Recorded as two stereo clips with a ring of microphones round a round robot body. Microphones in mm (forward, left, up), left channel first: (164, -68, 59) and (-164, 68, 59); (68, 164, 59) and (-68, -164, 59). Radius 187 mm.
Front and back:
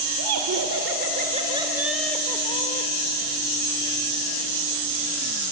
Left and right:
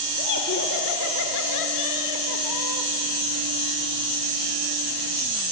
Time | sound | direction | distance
0.2 | laughter | 125° left | 1.9 m